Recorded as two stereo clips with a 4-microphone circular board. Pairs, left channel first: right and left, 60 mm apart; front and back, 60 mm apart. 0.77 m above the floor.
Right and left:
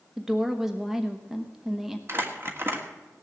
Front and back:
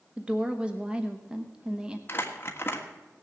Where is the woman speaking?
155° left, 1.0 m.